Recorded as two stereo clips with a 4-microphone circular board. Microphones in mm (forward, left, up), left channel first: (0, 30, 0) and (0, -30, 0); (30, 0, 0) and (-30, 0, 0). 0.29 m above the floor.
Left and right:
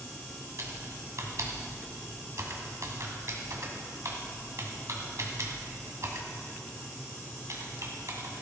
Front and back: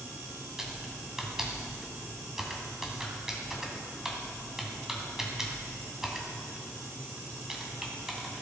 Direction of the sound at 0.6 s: 100° right.